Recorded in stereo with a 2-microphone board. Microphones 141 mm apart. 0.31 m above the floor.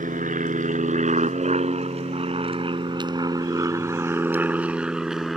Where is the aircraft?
65° right (ahead or behind); by 5.4 s centre (ahead or behind).